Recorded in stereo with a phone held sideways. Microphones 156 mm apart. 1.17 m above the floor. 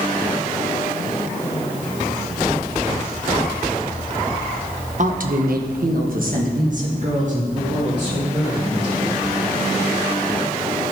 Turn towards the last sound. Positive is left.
turn(degrees=-45)  # may be behind; listen again after turning